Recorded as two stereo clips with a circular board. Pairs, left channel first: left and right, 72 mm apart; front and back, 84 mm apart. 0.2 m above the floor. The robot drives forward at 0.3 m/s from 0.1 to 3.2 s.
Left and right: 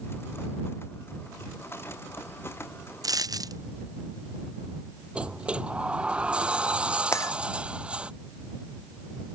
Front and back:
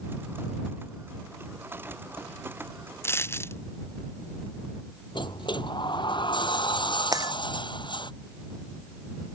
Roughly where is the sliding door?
Ahead.